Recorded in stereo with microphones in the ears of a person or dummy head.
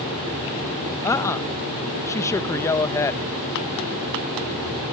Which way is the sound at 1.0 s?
10° left (ahead or behind).